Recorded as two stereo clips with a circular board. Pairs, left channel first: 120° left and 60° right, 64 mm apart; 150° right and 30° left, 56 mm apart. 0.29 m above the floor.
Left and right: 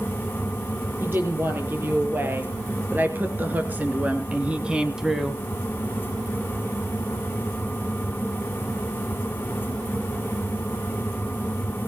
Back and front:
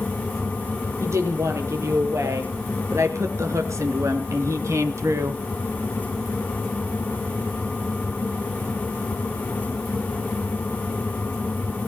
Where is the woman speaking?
5° right, 7 m; by 5.4 s 30° left, 1.6 m.